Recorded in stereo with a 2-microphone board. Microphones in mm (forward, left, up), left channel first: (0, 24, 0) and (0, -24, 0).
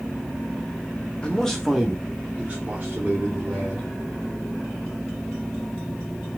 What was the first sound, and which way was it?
A man speaking, 20° left (ahead or behind).